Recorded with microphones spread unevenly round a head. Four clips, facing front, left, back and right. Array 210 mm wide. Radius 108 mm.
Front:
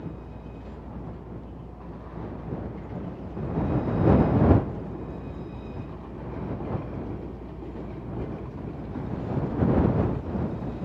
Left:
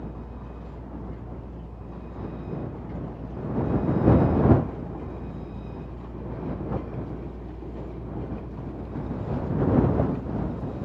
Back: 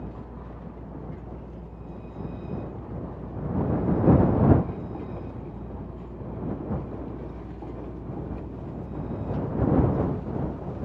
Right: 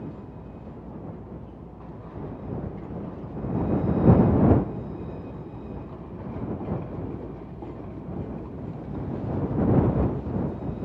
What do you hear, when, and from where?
0.0 s a fan: 105° left